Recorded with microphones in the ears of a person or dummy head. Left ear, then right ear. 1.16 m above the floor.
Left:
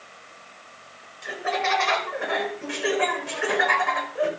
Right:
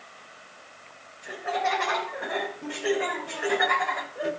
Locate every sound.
1.2 s laughter: 70° left (ahead or behind), 5 m; by 4.3 s 80° left, 5 m